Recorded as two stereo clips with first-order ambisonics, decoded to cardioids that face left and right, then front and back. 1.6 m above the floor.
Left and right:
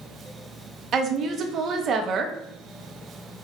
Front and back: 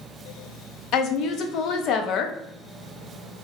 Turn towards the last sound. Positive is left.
turn(degrees=-35)